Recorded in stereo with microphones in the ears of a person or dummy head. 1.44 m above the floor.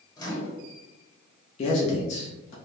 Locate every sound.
0.2 s a microwave: 25° left (ahead or behind), 1.0 m
1.6 s a man speaking: 40° left (ahead or behind), 0.5 m